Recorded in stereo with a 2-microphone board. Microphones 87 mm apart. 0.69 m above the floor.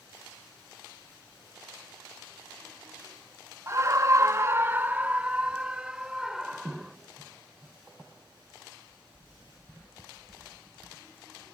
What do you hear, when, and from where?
3.7 s a scream: 30° right (ahead or behind); by 7.0 s 5° right (ahead or behind)